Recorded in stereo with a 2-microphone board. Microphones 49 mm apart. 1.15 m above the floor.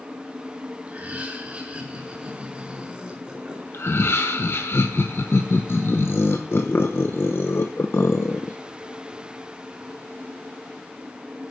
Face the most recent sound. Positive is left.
turn(degrees=55)  # may be behind; listen again after turning